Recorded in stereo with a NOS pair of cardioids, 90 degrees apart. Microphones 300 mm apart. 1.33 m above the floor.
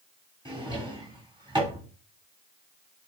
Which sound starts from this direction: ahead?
A drawer, at 0.5 s.